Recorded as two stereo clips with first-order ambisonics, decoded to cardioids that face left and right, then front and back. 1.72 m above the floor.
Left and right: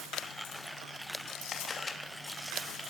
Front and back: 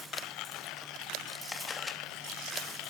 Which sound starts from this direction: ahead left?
A camera shutter, at 1.5 s.